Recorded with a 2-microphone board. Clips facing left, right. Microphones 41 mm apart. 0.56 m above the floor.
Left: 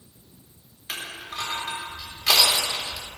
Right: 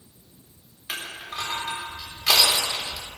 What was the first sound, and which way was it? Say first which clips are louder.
Crushing: right 1 dB; 5° right (ahead or behind).